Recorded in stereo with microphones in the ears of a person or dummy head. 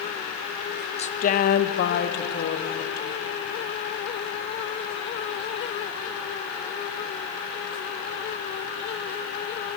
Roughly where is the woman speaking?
Left.